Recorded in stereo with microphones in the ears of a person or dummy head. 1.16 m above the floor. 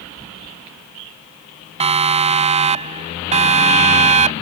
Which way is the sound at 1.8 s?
35° right (ahead or behind).